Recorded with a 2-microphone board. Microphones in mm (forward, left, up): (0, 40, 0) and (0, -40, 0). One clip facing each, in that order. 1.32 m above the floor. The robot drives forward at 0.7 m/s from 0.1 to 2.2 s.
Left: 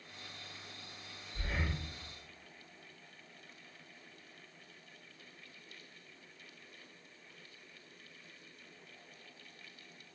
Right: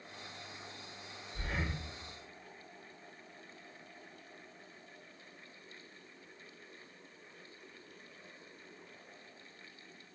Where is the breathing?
15° right (ahead or behind), 1.7 m; by 1.8 s 10° right (ahead or behind), 1.9 m.